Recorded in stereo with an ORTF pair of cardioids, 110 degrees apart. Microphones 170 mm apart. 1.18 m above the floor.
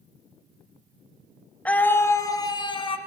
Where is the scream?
10° left, 2.0 m; by 3.0 s 35° left, 2 m.